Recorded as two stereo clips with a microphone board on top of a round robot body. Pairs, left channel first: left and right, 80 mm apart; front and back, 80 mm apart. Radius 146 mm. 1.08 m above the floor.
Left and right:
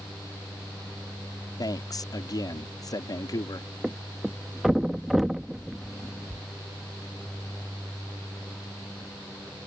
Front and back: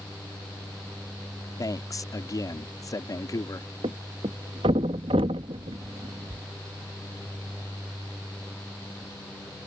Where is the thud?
175° right.